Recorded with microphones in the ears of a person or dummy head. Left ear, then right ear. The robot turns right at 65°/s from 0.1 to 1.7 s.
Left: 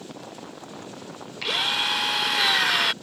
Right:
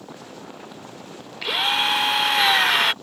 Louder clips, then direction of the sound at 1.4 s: Right 3 dB; 5° right (ahead or behind).